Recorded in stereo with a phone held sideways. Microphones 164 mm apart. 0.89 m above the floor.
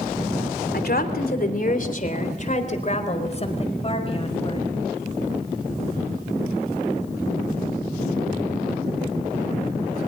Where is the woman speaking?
70° left (ahead or behind), 3 m; by 4.7 s 35° left (ahead or behind), 6 m.